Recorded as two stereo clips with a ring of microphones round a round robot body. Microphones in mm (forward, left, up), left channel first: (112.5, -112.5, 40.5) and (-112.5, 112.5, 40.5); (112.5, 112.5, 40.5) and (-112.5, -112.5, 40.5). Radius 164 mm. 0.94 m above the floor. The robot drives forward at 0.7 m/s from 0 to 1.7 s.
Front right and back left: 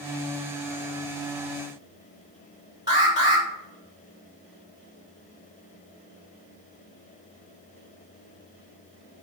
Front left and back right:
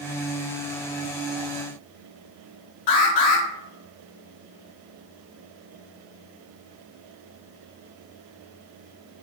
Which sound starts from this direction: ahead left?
An alarm, at 2.9 s.